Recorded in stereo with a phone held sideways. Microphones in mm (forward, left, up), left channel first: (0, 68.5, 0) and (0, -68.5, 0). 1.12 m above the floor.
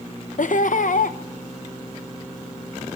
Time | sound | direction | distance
0.4 | laughter | 70° left (ahead or behind) | 0.6 m